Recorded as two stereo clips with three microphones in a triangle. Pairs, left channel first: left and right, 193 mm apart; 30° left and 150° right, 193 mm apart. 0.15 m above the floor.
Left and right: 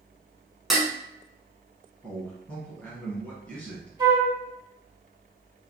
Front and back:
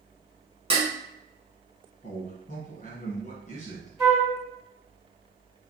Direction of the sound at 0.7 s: 175° right.